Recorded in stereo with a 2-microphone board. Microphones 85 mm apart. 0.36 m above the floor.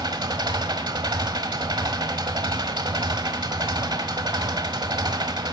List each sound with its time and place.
0.0 s an engine running: 55° right (ahead or behind), 1.2 m